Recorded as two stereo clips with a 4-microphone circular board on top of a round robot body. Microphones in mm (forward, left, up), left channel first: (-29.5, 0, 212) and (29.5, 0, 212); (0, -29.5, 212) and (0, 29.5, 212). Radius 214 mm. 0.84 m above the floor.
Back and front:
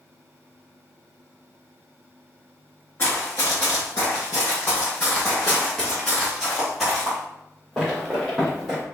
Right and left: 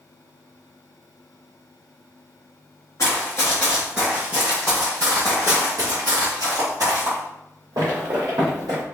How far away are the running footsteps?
About 0.9 m.